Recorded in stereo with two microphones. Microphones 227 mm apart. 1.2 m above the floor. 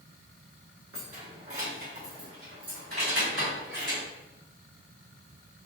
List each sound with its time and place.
0.9 s keys jangling: 70° right (ahead or behind), 1.2 m; by 4.0 s 85° right, 4 m